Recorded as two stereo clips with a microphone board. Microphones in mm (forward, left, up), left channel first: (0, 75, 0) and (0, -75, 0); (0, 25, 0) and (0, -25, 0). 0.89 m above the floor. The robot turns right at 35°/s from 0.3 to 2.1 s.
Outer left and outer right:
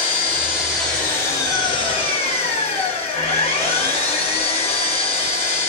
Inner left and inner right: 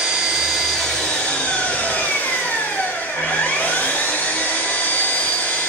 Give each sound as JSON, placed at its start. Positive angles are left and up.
{"t": 0.0, "sound": "an engine running", "azimuth_deg": -15, "distance_m": 1.2}